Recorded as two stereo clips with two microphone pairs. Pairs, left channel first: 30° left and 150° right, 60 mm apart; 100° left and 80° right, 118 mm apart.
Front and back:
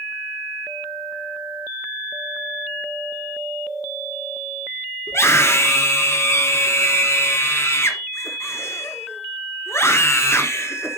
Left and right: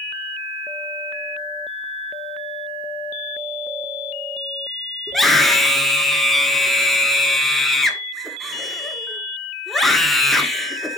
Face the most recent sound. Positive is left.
turn(degrees=10)